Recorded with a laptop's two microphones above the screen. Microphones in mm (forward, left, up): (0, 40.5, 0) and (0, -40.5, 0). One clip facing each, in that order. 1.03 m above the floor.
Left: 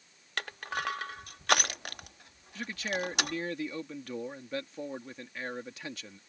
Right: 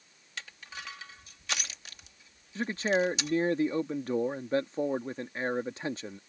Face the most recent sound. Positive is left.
turn(degrees=-35)  # may be behind; listen again after turning